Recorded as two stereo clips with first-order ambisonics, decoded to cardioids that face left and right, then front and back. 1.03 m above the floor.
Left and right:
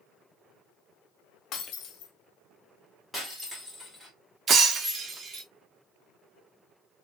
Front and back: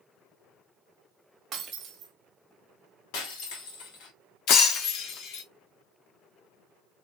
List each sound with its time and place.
1.5 s breaking glass: 125° left, 0.9 m
3.1 s breaking glass: 5° left, 1.4 m
4.5 s breaking glass: 25° right, 0.8 m